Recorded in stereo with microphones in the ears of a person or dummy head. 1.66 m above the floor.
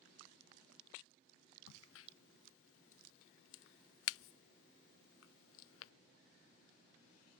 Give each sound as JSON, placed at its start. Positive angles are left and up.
{"t": 1.7, "sound": "a crack", "side_deg": 75}